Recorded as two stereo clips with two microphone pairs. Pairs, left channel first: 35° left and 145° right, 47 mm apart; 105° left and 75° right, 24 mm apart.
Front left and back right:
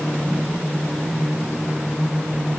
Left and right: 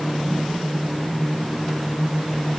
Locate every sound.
Only background noise.